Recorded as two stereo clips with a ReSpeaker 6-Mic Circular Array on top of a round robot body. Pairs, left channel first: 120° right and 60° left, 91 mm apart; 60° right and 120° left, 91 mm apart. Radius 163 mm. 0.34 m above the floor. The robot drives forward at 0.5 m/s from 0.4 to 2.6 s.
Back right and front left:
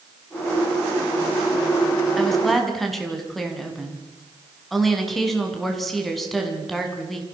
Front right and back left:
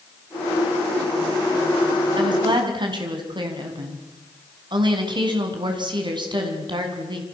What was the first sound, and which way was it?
A woman speaking, 150° left.